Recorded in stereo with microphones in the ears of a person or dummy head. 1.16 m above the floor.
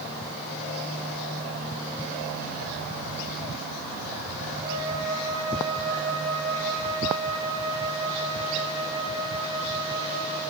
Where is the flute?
30° right (ahead or behind), 7 m.